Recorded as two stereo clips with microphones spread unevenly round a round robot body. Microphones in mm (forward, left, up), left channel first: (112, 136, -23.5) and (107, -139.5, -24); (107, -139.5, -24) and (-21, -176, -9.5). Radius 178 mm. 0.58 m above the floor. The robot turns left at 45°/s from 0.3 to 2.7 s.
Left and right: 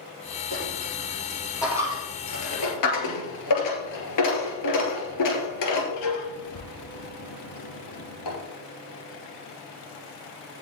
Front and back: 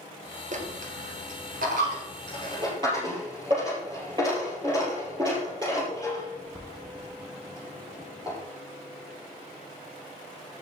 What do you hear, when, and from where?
0.5 s a dropped coin: 140° right, 2 m; by 8.4 s 120° left, 2 m